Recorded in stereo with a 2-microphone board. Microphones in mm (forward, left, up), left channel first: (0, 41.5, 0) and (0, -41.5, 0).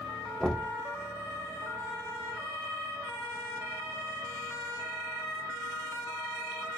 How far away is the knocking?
About 0.6 m.